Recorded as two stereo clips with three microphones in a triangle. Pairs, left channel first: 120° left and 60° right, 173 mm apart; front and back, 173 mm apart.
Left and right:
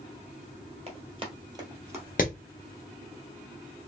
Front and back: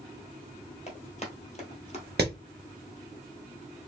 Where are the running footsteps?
30° right, 2.0 m; by 2.0 s 10° left, 1.8 m.